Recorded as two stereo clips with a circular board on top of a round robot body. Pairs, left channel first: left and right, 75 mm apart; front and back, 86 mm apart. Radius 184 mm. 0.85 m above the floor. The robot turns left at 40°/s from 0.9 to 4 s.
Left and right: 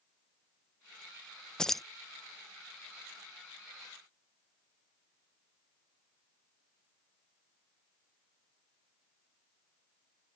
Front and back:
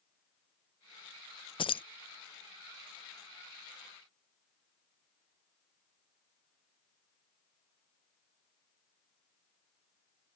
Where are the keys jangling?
10° left; by 1.8 s straight ahead.